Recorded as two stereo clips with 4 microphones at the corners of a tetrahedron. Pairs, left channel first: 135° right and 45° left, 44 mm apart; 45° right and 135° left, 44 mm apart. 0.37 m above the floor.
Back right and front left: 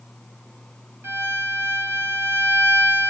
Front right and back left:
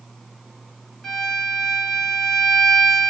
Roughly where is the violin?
Ahead left.